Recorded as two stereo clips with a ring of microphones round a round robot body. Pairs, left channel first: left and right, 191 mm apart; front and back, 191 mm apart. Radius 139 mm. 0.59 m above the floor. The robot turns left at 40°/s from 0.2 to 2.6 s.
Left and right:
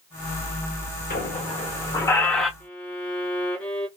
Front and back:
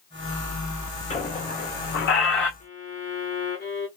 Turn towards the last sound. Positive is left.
turn(degrees=10)